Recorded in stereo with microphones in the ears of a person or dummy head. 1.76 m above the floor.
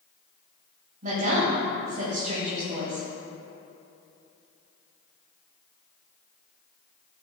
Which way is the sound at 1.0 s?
50° right (ahead or behind).